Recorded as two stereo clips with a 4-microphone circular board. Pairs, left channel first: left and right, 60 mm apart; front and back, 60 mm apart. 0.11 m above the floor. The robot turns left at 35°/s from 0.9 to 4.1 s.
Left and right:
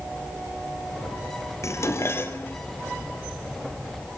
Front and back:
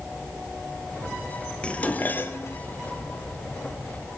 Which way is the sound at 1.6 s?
70° left.